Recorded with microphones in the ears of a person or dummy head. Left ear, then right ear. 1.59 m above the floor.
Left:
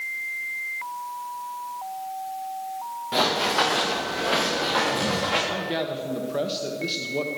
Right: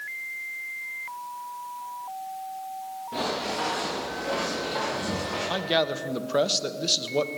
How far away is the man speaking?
About 1.0 m.